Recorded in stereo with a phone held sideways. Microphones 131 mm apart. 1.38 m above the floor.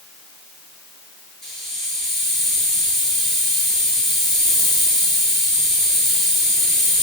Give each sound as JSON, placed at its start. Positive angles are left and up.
{"t": 1.4, "sound": "a hiss", "side_deg": 5, "distance_m": 8.5}